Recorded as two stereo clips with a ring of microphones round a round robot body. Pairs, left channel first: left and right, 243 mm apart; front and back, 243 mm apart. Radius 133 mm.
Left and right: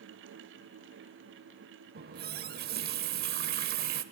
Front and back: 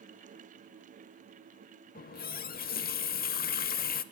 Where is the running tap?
45° right, 0.8 m.